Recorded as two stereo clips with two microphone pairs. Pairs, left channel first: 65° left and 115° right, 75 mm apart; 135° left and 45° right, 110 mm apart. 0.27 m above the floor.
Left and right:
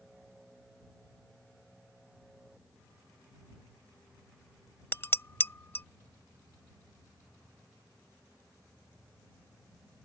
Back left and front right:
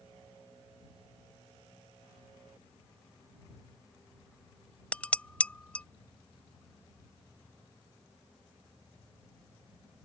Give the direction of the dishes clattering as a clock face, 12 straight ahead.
10 o'clock.